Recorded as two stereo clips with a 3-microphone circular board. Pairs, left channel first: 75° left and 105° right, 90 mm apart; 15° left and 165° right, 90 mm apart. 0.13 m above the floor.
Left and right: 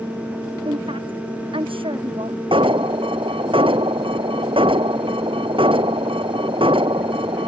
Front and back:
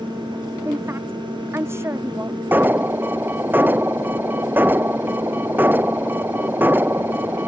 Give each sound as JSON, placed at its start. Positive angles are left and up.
{"t": 0.7, "sound": "a woman speaking", "azimuth_deg": -105}
{"t": 2.5, "sound": "an alarm", "azimuth_deg": -95}